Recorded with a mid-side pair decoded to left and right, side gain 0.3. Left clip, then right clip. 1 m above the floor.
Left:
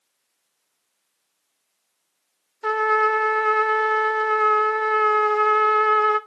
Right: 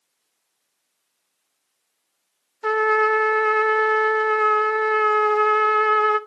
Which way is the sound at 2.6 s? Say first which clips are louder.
Right 1 dB; 10° right.